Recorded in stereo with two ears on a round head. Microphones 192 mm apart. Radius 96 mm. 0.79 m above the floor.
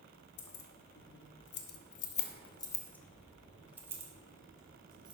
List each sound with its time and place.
0.4 s keys jangling: 70° left (ahead or behind), 1.2 m; by 5.1 s 20° right (ahead or behind), 1.9 m